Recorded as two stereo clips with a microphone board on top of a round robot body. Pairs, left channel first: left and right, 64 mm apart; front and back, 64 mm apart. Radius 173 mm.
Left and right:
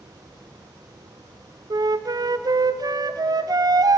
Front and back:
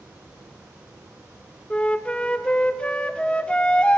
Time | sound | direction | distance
1.7 | a flute | 75° right | 0.7 m